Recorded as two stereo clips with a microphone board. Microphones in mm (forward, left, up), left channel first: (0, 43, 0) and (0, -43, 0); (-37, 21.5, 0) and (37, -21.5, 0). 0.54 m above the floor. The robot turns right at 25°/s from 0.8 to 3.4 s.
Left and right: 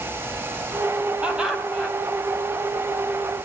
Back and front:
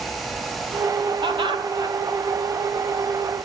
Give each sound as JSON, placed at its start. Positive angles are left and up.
{"t": 1.2, "sound": "laughter", "azimuth_deg": -15, "distance_m": 4.0}